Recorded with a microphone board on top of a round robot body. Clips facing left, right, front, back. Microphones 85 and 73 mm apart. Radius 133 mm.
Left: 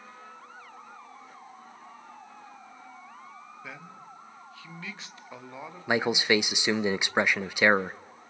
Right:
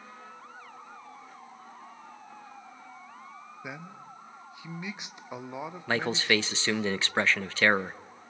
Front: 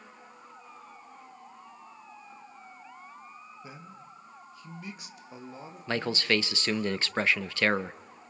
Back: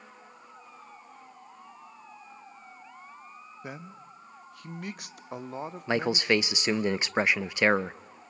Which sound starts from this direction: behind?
A man speaking, at 3.6 s.